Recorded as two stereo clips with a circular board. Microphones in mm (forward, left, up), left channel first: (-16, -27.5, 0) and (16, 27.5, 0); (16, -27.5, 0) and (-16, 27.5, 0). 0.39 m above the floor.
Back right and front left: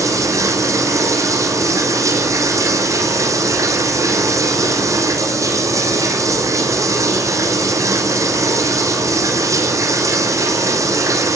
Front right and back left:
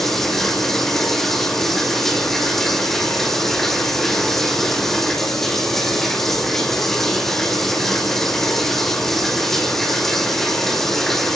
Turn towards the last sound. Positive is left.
turn(degrees=25)